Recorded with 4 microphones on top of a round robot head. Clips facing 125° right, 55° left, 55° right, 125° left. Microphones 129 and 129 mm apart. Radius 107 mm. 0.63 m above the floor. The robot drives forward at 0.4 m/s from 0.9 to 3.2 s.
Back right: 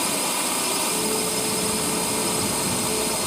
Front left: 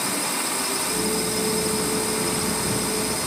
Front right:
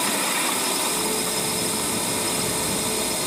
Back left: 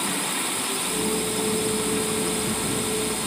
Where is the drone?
65° right.